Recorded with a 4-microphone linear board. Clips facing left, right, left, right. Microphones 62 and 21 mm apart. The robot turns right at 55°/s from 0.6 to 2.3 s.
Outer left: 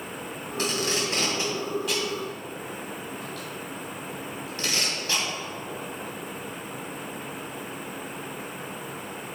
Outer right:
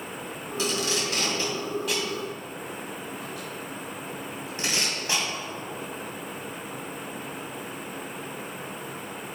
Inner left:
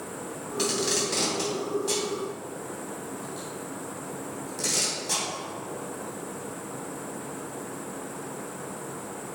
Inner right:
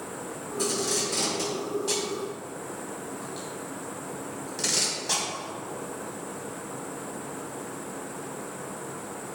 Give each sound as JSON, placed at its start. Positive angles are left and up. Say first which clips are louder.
{"t": 0.6, "sound": "tape being pulled", "louder": "outer left 1 dB, inner left 1 dB", "side_deg": 50, "distance_m": 2.5}